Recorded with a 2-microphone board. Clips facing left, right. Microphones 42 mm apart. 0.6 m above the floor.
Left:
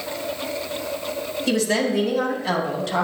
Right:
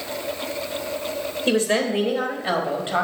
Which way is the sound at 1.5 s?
35° right (ahead or behind).